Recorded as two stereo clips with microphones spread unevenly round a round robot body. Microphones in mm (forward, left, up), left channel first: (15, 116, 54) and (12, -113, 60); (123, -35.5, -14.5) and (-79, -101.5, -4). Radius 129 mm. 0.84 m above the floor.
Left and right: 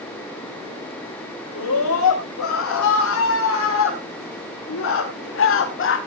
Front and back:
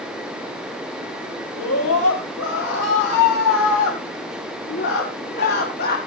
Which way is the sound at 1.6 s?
60° left.